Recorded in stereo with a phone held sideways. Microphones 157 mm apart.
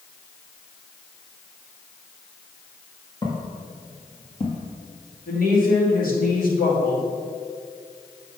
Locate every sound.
3.2 s footsteps: 25° left (ahead or behind), 2.0 m; by 4.7 s 40° left (ahead or behind), 1.7 m
5.3 s a woman speaking: 65° left (ahead or behind), 2.5 m